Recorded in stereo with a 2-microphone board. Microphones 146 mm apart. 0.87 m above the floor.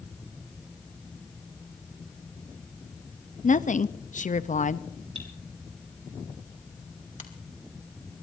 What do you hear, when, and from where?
3.4 s a woman speaking: 55° left (ahead or behind), 0.7 m
5.2 s cutlery clinking: 45° right (ahead or behind), 5 m
7.2 s a finger snap: 55° left (ahead or behind), 2.5 m